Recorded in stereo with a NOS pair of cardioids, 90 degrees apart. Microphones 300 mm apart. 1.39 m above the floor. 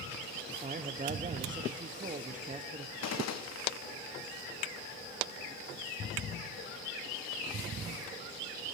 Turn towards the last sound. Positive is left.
turn(degrees=60)